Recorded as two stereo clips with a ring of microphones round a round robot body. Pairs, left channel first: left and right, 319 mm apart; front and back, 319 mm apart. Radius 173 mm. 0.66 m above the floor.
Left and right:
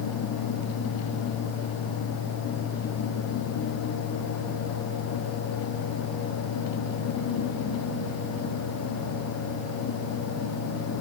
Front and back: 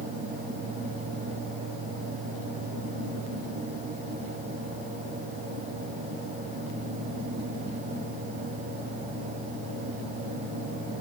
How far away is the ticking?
No ticking in this recording.